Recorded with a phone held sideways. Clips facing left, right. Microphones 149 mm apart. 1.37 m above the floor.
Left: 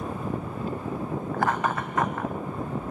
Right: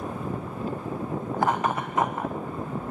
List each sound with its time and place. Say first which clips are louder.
1.3 s laughter: right 1 dB; 20° right (ahead or behind), 1.2 m